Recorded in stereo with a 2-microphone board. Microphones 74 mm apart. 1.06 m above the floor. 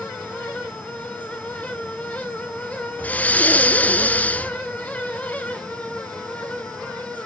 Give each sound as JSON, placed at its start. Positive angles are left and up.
{"t": 3.0, "sound": "breathing", "side_deg": 20, "distance_m": 0.8}